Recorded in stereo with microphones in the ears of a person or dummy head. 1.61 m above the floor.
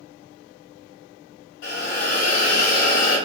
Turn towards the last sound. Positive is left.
turn(degrees=65)  # may be behind; listen again after turning